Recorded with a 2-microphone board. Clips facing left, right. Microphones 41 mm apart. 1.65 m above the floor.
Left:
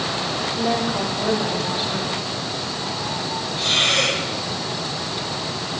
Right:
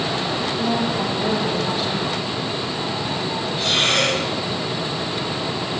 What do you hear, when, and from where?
0.6 s a woman speaking: 15° left (ahead or behind), 4.5 m
3.6 s breathing: 5° right (ahead or behind), 7 m